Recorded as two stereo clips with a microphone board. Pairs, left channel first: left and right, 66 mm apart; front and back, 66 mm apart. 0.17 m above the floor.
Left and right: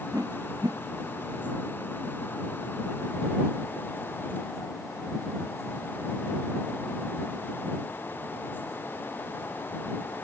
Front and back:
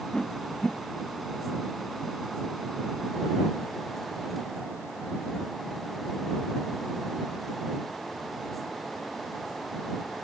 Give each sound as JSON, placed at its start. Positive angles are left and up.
{"t": 0.1, "sound": "a whoosh", "azimuth_deg": -75}